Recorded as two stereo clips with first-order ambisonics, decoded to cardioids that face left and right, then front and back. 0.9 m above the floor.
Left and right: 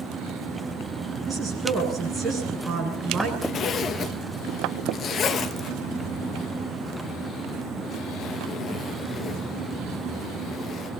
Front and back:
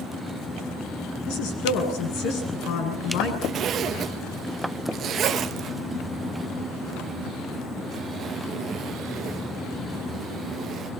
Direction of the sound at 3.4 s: 130° left.